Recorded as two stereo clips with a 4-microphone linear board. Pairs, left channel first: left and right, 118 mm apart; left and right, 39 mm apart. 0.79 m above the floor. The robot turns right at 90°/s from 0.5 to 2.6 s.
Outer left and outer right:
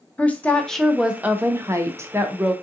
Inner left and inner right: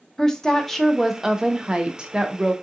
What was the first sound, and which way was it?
A woman speaking, 10° left (ahead or behind).